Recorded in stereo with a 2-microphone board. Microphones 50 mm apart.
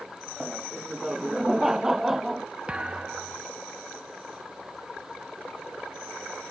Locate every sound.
0.4 s laughter: 15° right (ahead or behind); by 2.5 s 10° right (ahead or behind)
2.7 s a thud: 20° right (ahead or behind)